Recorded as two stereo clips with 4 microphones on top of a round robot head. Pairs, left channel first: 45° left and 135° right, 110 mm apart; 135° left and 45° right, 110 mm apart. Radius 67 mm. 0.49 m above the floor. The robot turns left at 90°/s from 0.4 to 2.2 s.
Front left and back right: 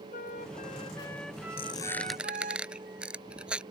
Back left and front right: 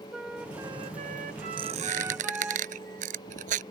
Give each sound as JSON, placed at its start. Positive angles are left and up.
{"t": 0.1, "sound": "a flute", "azimuth_deg": 40}
{"t": 1.6, "sound": "a squeak", "azimuth_deg": 5}